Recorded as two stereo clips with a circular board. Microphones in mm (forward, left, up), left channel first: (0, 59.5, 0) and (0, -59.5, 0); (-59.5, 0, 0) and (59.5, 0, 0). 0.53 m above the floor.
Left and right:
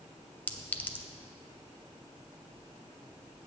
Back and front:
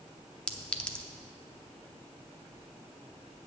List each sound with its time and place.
0.5 s a clink: 120° left, 0.6 m